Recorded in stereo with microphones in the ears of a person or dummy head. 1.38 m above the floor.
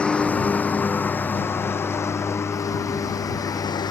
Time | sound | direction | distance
0.0 | a lawn mower | 10° left (ahead or behind) | ?